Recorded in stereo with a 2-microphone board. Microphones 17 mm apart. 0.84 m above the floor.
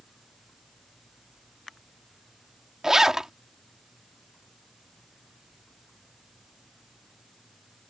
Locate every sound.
2.8 s a zipper: 40° right (ahead or behind)